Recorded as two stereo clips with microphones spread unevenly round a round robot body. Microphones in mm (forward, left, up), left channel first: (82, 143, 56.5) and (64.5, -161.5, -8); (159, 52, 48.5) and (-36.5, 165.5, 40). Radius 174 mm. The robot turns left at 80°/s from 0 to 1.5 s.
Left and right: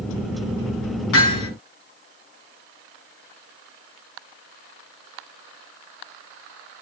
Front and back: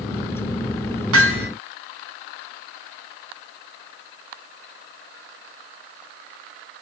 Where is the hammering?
145° left, 5.5 m; by 1.5 s 115° left, 5.5 m.